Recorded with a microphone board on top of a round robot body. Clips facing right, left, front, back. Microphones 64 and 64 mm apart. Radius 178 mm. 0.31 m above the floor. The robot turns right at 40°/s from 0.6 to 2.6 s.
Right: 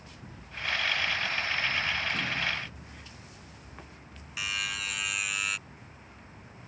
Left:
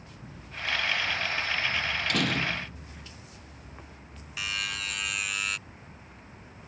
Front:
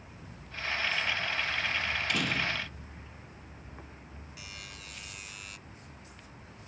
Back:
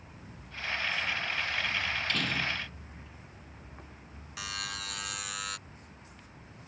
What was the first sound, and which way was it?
A door slam, 80° left.